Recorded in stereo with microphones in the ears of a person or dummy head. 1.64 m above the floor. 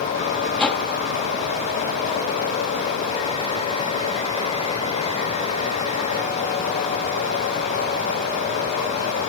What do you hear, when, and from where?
0.6 s a whoosh: 10° left (ahead or behind)